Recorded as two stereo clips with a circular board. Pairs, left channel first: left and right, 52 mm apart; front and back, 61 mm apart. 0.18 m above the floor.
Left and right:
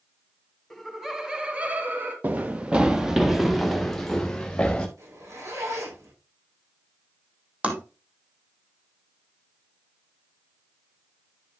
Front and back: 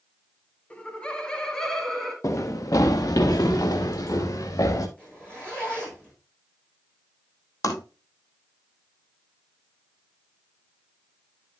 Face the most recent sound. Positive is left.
turn(degrees=-25)